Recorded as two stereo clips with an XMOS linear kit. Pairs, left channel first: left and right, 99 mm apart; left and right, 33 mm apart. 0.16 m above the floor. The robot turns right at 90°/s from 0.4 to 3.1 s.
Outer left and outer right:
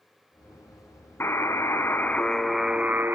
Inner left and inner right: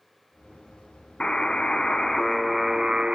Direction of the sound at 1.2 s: 25° left (ahead or behind).